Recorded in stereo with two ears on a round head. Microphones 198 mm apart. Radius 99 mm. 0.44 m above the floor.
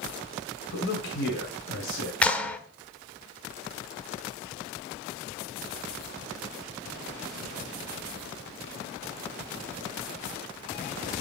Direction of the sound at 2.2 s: 5° left (ahead or behind).